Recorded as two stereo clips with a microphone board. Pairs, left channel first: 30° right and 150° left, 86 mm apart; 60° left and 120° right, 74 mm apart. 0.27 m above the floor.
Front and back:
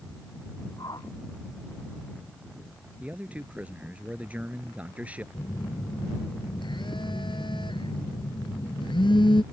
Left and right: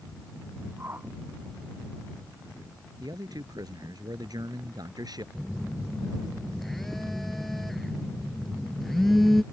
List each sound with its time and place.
0.8 s a whoosh: 65° right
3.0 s a man speaking: 135° right
5.3 s a phone buzzing: 30° right